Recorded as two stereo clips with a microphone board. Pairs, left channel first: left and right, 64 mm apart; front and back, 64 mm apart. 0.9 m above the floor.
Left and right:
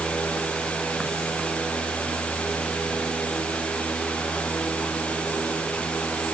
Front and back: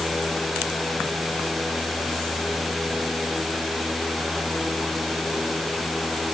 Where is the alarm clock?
No alarm clock in this recording.